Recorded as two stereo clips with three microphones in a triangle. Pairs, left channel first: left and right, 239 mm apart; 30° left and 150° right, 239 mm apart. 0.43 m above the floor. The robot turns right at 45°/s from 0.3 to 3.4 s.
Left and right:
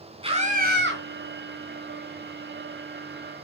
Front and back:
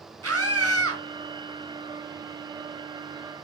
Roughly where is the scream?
Behind right.